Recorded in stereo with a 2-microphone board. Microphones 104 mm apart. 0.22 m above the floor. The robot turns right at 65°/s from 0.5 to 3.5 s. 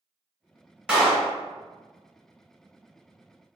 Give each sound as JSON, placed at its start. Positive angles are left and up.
{"t": 0.9, "sound": "a clap", "side_deg": -10, "distance_m": 1.1}